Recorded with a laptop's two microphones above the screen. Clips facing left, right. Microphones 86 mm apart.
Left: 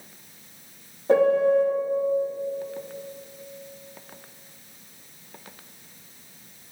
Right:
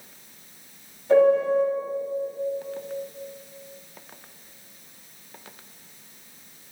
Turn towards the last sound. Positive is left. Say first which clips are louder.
# right 1 dB
turn(degrees=50)  # may be behind; listen again after turning